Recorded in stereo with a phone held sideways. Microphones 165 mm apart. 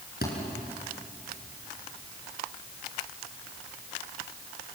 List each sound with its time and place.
0.2 s a thud: 70° left (ahead or behind), 4.5 m